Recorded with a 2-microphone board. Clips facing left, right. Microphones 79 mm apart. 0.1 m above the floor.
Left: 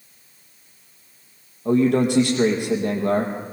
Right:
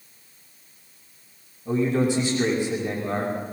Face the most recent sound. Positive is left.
turn(degrees=70)  # may be behind; listen again after turning